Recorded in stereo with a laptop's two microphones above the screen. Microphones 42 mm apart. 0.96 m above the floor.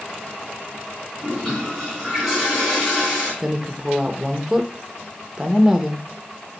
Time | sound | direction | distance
1.2 | a toilet flushing | 5° left (ahead or behind) | 3.5 m
3.4 | a woman speaking | 10° right (ahead or behind) | 0.8 m